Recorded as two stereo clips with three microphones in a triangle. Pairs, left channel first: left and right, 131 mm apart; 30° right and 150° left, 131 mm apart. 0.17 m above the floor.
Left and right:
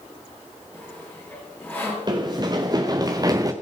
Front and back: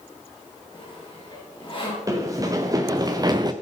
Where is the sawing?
15° left, 3.5 m.